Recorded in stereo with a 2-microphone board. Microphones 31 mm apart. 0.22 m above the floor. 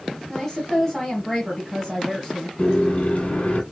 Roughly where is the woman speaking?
Centre.